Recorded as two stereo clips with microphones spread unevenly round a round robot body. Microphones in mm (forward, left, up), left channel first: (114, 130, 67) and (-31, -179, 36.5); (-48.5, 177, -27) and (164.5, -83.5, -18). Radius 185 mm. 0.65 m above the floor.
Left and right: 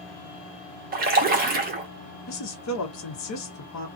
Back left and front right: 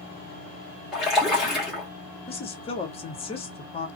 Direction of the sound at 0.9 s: 140° right.